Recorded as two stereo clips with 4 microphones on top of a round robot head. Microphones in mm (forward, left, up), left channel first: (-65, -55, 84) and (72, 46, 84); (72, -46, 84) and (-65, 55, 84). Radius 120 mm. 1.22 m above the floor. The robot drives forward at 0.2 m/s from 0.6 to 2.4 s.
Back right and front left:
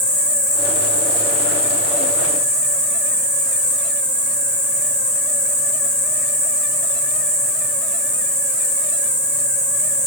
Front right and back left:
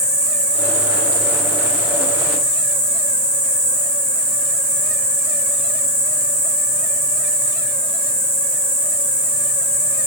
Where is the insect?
150° right, 0.9 m; by 10.1 s 160° right, 1.1 m.